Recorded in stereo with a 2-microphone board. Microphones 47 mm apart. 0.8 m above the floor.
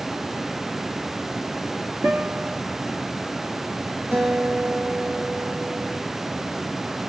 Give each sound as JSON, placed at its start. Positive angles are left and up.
{"t": 2.0, "sound": "a guitar", "side_deg": -55, "distance_m": 1.2}
{"t": 4.1, "sound": "a guitar", "side_deg": -60, "distance_m": 3.5}